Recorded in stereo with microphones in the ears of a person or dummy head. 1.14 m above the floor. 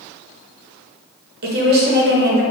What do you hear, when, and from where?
1.4 s a woman speaking: 45° right (ahead or behind), 0.6 m